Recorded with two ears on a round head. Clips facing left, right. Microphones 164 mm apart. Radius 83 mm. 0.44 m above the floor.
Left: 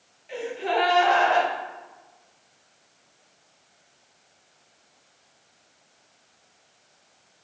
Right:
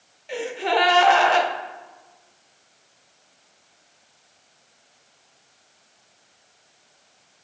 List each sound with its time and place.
0.3 s a gasp: 60° right (ahead or behind), 0.5 m